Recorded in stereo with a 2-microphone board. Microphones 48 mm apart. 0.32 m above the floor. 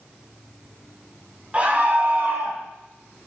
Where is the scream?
30° right (ahead or behind), 2.5 m; by 2.6 s 55° right (ahead or behind), 2.5 m.